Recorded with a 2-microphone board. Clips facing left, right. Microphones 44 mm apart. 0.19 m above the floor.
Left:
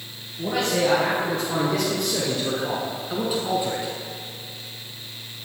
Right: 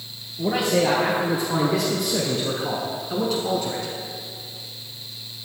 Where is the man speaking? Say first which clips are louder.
Right 2 dB; 10° right (ahead or behind), 3 m; by 3.9 s 20° left (ahead or behind), 1.4 m.